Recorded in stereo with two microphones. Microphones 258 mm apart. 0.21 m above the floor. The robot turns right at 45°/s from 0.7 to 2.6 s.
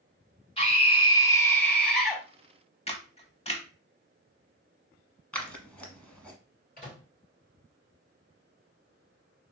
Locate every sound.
0.6 s a scream: 20° left (ahead or behind), 1.2 m; by 2.2 s 5° right (ahead or behind), 1.2 m
2.9 s a camera shutter: 25° left (ahead or behind), 0.6 m
5.3 s scissors: 5° left (ahead or behind), 0.8 m
6.8 s a microwave: 35° left (ahead or behind), 2.5 m